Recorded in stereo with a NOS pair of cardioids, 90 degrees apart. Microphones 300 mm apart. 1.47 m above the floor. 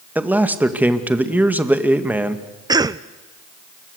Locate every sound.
0.1 s a man speaking: 5° right, 2 m
2.7 s a cough: 15° right, 0.6 m